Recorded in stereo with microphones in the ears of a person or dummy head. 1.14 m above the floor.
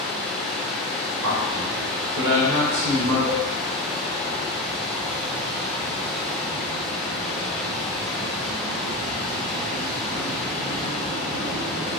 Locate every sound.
0.0 s running water: 5° left (ahead or behind), 0.8 m
1.2 s a man speaking: 70° right (ahead or behind), 1.6 m
3.3 s a cowbell: 30° right (ahead or behind), 0.5 m